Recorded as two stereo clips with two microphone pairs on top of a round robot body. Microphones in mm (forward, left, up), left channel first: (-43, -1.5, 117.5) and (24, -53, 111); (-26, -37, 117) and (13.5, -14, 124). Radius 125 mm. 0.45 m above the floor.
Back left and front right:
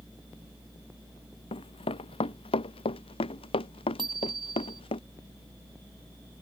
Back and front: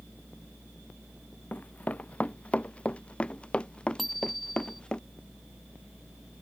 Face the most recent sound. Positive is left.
turn(degrees=-60)